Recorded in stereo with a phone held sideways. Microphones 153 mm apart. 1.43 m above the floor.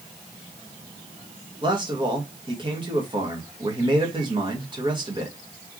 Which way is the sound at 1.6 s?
30° right (ahead or behind).